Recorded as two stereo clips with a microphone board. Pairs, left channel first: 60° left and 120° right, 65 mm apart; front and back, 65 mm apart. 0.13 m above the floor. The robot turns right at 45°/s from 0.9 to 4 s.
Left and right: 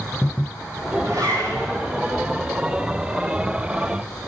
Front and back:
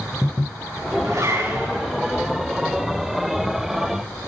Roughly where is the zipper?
Behind right.